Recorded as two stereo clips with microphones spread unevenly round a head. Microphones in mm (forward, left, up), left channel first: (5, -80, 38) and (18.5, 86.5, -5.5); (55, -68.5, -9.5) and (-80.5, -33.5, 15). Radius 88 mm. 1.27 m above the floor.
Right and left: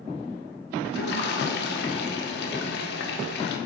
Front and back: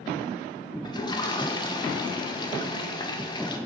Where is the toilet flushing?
65° right, 0.5 m.